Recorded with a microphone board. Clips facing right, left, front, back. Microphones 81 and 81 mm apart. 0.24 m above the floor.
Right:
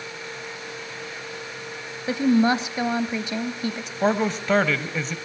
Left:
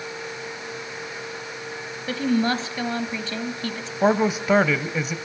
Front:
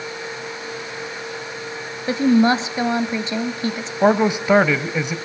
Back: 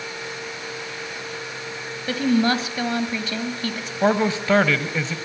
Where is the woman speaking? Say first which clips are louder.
Right 3 dB, front 4 dB; 40° right, 1.1 m.